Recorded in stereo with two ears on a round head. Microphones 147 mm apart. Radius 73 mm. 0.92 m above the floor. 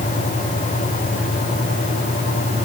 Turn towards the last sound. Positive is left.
No sound to turn to.